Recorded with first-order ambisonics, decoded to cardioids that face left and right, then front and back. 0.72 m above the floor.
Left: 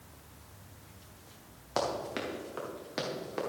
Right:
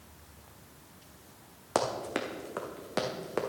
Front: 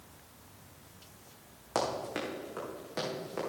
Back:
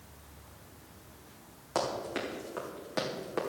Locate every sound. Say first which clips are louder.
1.8 s running footsteps: right 2 dB, even; 85° right, 2.5 m; by 3.4 s 110° right, 2.5 m